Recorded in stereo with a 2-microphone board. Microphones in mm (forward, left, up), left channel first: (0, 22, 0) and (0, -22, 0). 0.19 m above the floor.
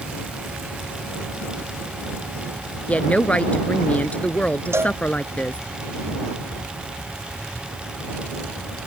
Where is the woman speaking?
30° left (ahead or behind).